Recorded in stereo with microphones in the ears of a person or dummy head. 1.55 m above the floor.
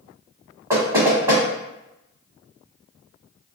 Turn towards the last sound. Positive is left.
turn(degrees=-25)  # may be behind; listen again after turning